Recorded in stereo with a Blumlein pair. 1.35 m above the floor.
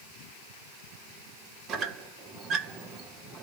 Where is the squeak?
30° right, 0.5 m.